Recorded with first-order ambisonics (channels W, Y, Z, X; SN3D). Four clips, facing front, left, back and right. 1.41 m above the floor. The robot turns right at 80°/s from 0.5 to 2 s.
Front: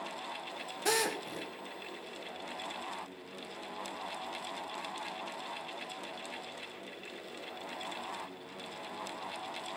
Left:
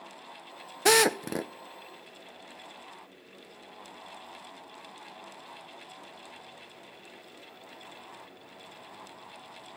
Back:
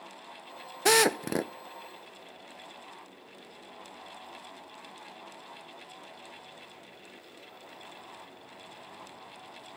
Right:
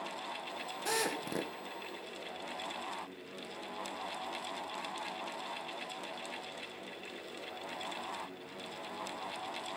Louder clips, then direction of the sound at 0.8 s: Left 13 dB, back 9 dB; 120° left.